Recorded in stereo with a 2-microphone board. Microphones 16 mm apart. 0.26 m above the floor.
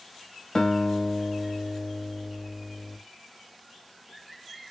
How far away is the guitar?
About 1.0 m.